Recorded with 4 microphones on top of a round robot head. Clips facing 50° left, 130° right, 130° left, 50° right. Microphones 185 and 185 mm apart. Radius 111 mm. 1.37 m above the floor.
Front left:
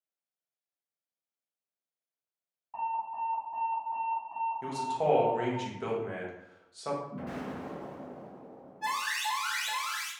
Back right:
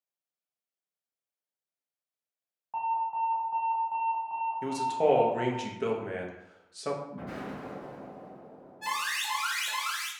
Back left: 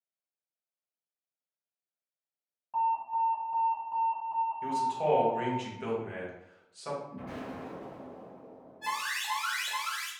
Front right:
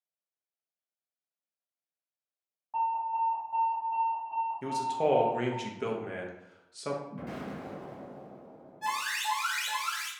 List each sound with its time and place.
2.7 s an alarm: 165° right, 0.6 m
4.6 s a man speaking: 75° right, 0.6 m
7.1 s an explosion: 15° right, 0.8 m
8.8 s an alarm: 100° right, 1.0 m